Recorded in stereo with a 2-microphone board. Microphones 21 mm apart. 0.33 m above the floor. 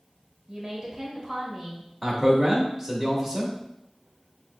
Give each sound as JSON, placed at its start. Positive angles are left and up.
{"t": 0.5, "sound": "a woman speaking", "side_deg": -25, "distance_m": 1.1}
{"t": 2.0, "sound": "a man speaking", "side_deg": -10, "distance_m": 0.8}